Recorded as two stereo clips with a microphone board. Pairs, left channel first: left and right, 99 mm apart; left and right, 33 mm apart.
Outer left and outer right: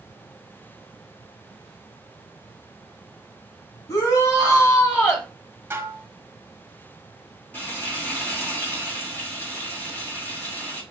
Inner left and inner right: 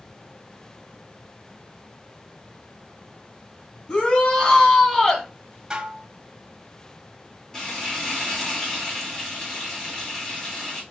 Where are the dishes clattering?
25° right (ahead or behind), 0.7 m.